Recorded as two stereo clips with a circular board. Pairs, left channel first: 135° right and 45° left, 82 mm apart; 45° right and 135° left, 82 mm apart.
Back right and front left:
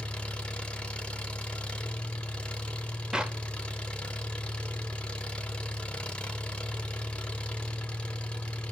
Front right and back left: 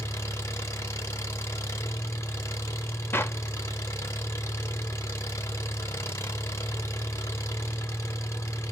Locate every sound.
0.0 s an engine running: 70° right, 1.1 m
3.1 s a clap: 25° right, 0.7 m